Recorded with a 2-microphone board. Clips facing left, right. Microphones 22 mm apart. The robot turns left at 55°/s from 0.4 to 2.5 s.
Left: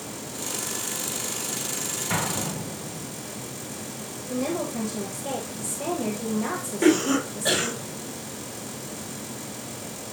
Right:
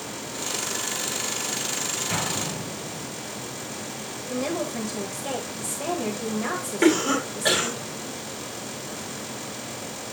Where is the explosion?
30° left (ahead or behind), 3 m; by 3.1 s 50° left (ahead or behind), 3 m.